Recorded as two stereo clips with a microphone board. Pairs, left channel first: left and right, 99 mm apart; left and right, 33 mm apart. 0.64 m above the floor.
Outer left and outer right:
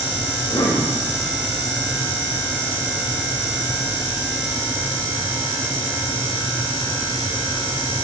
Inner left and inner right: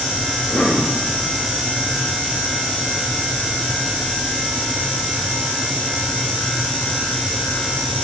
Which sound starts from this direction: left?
A cough, at 0.3 s.